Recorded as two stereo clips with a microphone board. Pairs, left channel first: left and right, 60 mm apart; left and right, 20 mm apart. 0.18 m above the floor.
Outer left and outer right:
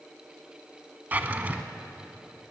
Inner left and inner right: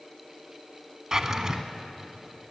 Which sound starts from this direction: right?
A drawer, at 1.1 s.